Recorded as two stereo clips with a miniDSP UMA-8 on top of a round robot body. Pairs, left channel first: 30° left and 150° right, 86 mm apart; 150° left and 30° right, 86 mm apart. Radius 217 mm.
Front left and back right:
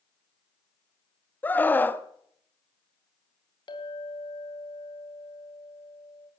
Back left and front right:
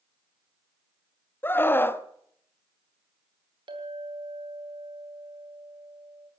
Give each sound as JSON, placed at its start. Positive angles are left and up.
{"t": 1.4, "sound": "a scream", "azimuth_deg": 95, "distance_m": 1.2}
{"t": 3.7, "sound": "a clink", "azimuth_deg": 0, "distance_m": 2.5}